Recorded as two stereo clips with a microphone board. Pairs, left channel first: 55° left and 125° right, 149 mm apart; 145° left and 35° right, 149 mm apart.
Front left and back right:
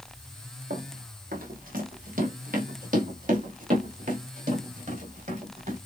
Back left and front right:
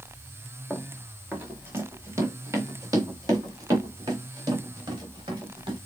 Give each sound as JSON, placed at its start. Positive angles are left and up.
{"t": 0.7, "sound": "running footsteps", "azimuth_deg": -120, "distance_m": 1.5}